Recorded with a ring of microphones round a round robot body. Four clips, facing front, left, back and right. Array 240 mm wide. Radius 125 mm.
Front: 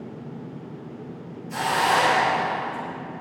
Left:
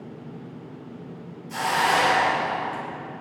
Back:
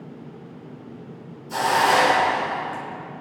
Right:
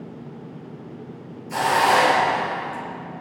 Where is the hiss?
150° right, 4.5 m.